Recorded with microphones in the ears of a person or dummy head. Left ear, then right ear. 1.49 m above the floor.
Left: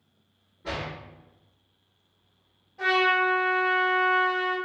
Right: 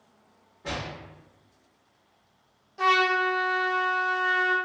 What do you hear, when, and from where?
0.6 s a door slam: 25° right (ahead or behind), 0.9 m
2.8 s a trumpet: 65° right (ahead or behind), 0.9 m